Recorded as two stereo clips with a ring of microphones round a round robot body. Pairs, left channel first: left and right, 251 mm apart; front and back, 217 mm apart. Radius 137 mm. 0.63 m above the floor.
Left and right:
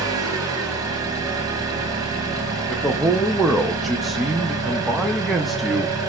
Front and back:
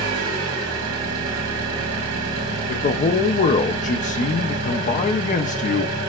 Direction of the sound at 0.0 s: 165° right.